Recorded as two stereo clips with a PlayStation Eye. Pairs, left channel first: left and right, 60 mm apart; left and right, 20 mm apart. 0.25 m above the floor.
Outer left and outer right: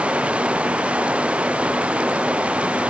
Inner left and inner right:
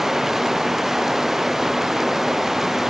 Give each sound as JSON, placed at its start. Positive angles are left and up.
{"t": 0.0, "sound": "running water", "side_deg": -20}